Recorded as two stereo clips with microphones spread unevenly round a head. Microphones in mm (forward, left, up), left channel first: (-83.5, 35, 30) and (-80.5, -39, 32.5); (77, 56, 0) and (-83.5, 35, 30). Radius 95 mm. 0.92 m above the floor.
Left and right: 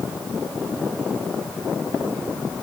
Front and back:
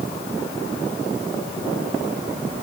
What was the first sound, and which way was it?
Only background noise.